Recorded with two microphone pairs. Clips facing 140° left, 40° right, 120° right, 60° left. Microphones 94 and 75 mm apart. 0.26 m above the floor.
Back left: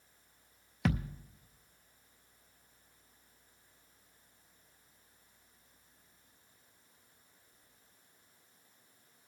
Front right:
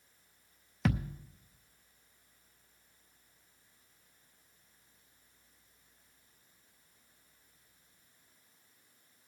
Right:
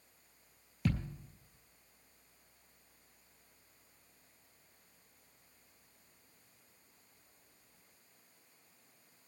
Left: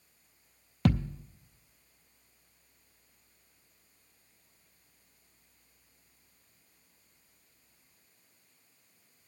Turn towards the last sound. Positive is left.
turn(degrees=45)